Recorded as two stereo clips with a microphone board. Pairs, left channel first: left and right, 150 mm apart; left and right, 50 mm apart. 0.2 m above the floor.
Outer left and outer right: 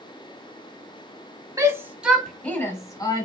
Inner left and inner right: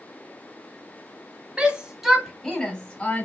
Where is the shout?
25° right (ahead or behind), 1.0 m; by 3.3 s 30° left (ahead or behind), 1.3 m.